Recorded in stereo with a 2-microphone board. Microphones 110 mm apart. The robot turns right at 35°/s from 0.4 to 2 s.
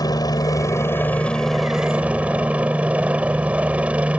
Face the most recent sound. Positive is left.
turn(degrees=-165)